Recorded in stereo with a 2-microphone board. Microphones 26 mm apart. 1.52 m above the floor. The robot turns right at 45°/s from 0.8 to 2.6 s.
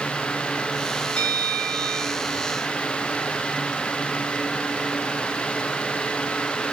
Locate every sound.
1.2 s a bell: 85° left, 4 m; by 2.2 s 135° left, 4 m